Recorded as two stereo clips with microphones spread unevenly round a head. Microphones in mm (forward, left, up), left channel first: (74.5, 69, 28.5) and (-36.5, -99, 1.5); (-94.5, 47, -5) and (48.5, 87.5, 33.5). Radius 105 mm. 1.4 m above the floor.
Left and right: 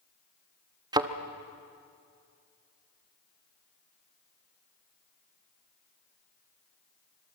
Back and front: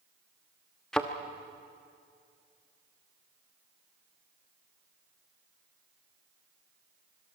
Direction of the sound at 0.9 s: 55° right.